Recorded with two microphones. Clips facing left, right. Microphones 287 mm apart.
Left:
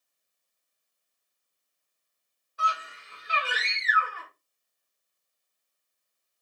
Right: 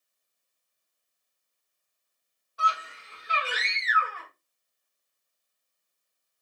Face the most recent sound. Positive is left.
turn(degrees=5)  # may be behind; listen again after turning